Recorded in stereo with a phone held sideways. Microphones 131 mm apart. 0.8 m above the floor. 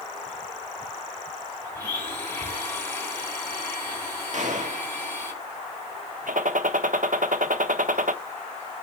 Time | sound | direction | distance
1.8 | a blender | 15° left (ahead or behind) | 4 m
4.3 | a gunshot | 65° right (ahead or behind) | 1.6 m
6.3 | a gunshot | 85° right | 0.6 m